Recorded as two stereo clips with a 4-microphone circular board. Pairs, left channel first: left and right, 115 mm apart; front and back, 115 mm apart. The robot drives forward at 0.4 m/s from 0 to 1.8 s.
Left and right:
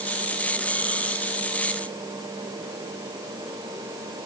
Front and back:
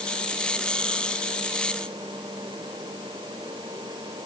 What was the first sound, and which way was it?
Only background noise.